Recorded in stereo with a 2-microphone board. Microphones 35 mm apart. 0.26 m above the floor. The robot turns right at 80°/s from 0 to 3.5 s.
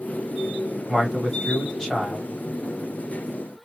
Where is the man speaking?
15° right (ahead or behind), 1.3 m; by 2.3 s 20° left (ahead or behind), 1.3 m.